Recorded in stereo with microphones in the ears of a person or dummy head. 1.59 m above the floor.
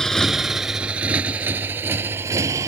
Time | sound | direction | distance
0.0 | a motorcycle | centre (ahead or behind) | ?